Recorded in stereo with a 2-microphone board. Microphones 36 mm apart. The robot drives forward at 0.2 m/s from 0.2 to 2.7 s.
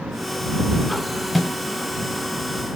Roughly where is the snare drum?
Centre.